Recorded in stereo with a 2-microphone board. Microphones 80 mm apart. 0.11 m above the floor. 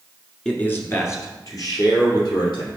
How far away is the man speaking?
About 1.2 m.